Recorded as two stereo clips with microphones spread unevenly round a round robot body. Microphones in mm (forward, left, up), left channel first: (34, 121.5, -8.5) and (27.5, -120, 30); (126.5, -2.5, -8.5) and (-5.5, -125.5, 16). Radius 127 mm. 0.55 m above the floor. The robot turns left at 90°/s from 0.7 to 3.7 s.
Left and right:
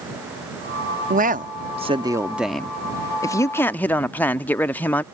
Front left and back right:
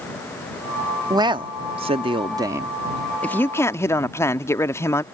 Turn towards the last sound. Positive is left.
turn(degrees=45)